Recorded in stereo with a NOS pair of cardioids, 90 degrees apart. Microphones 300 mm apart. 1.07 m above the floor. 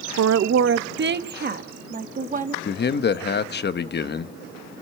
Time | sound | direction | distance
0.2 | a woman speaking | 60° right | 0.7 m
2.6 | a man speaking | 35° left | 1.1 m